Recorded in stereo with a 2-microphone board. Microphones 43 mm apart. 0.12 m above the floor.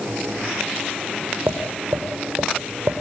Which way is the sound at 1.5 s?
85° right.